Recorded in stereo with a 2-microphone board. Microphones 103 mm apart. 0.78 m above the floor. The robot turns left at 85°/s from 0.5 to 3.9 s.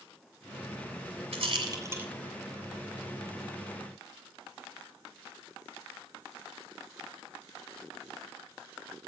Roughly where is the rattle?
Right.